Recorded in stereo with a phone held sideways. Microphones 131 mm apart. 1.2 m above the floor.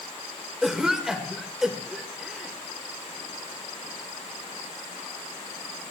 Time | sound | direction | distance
0.6 | a cough | 5° right (ahead or behind) | 1.7 m